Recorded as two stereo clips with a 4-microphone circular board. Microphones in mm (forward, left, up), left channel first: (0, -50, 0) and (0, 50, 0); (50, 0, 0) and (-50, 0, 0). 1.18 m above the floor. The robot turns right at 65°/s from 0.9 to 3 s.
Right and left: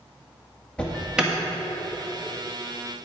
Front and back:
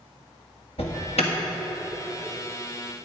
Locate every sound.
0.8 s an alarm: 10° right, 1.7 m; by 1.3 s 15° left, 1.7 m